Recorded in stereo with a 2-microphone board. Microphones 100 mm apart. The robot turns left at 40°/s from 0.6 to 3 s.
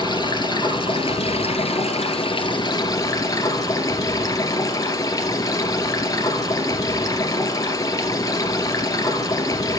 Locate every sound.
0.0 s running water: 130° left, 1.8 m; by 9.8 s 35° left, 1.8 m